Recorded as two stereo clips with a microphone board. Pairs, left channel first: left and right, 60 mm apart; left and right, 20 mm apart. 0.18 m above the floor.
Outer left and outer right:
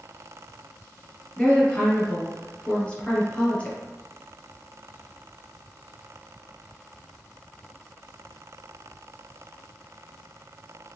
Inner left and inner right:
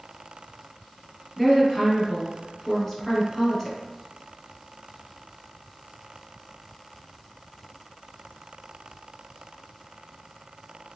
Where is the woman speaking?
20° left (ahead or behind), 1.8 m.